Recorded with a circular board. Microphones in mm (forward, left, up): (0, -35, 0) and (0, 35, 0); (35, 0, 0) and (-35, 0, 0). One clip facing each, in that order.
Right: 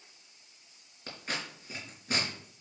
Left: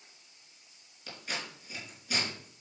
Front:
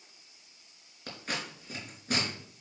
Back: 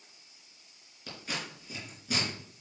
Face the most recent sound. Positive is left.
turn(degrees=-40)